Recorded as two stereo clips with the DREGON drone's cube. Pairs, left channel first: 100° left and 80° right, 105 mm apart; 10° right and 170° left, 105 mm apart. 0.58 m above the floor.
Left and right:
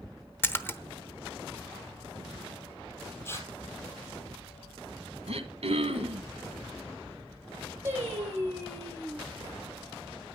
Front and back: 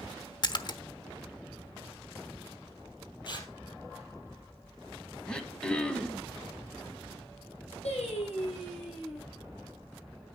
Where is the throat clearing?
90° right, 1.5 m.